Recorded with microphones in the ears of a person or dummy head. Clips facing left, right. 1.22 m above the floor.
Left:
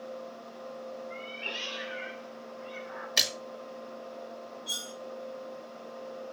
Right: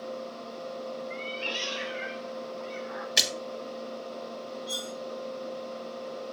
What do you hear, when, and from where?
1.1 s a cat meowing: 45° right (ahead or behind), 0.9 m; by 3.1 s 75° right (ahead or behind), 1.5 m
3.2 s a splash: 5° right (ahead or behind), 1.0 m
4.7 s cutlery clinking: 30° left (ahead or behind), 2.5 m